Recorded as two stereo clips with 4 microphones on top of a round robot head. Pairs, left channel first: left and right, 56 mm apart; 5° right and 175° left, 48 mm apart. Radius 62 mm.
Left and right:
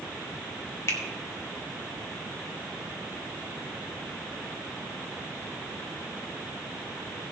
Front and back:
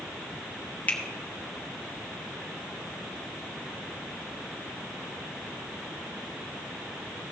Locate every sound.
0.9 s a finger snap: 50° left, 1.9 m